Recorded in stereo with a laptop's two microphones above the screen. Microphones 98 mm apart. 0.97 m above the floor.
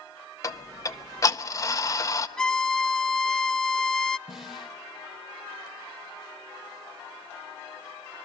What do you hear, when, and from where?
0.4 s ticking: 35° left (ahead or behind), 0.7 m
2.4 s a violin: 5° left (ahead or behind), 0.5 m
4.3 s a snare drum: centre (ahead or behind), 2 m